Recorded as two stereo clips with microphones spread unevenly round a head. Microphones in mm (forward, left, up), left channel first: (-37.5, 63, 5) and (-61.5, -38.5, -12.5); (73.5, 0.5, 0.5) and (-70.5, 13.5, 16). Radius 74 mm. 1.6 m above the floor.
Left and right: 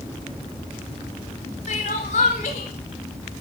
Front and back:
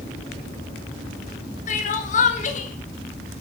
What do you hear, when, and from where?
1.7 s crying: 35° left, 3.5 m